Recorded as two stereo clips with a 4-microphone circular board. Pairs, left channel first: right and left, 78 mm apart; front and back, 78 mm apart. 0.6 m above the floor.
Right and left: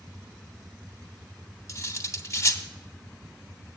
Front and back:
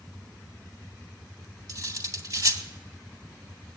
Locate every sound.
1.7 s cutlery clinking: 140° right, 1.0 m